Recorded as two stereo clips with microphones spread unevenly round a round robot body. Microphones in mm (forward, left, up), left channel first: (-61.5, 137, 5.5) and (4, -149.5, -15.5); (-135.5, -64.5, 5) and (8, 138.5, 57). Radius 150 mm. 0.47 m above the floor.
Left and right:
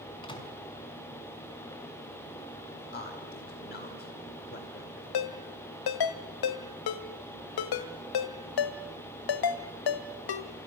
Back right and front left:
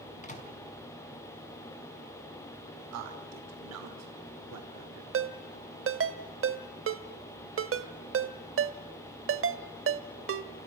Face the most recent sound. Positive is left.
turn(degrees=95)